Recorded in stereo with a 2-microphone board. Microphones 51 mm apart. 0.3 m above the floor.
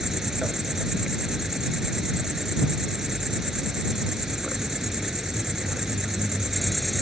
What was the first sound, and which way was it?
An insect, 10° right (ahead or behind).